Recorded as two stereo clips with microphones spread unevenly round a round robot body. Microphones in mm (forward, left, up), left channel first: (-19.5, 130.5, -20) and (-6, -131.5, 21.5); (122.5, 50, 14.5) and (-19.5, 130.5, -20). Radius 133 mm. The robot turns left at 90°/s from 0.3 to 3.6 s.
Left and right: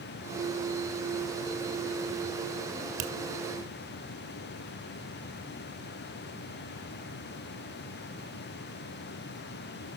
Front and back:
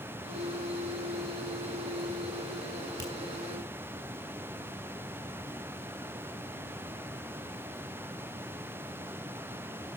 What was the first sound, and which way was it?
A finger snap, 150° right.